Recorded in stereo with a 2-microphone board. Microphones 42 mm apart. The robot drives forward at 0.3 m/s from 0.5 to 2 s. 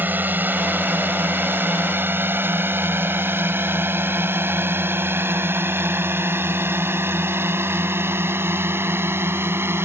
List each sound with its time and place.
0.0 s a drone: 55° right (ahead or behind); by 9.9 s 75° right (ahead or behind)